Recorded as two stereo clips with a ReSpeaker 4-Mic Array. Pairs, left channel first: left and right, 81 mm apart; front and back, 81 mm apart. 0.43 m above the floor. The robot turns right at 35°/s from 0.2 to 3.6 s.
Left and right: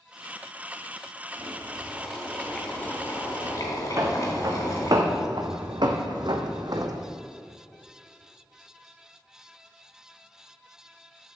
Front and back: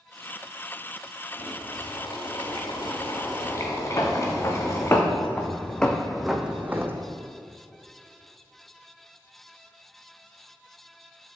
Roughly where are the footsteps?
Ahead right.